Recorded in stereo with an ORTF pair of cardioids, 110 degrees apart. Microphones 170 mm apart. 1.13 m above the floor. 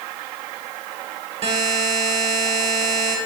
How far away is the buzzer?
About 3 m.